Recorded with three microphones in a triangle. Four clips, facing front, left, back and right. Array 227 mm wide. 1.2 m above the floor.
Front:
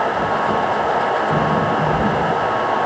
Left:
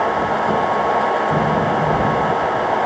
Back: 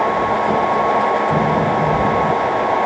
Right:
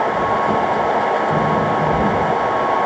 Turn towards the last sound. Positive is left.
No sound to turn to.